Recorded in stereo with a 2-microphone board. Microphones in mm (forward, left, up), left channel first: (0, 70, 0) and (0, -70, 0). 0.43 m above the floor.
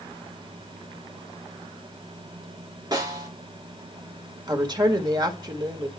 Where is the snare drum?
30° right (ahead or behind), 3 m.